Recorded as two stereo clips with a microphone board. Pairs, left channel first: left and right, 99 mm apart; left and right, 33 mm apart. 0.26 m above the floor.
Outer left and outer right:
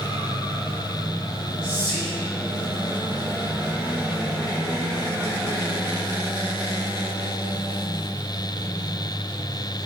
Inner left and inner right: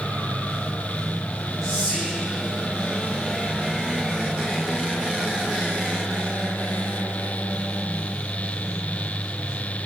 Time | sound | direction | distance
1.6 | whispering | 10° left (ahead or behind) | 1.6 m